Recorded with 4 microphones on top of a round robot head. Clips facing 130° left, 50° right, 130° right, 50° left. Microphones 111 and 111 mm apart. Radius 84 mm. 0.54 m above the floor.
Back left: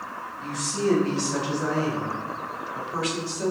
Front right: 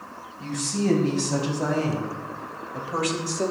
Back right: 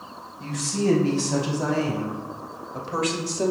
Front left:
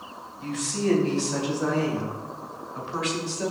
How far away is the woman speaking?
About 6 m.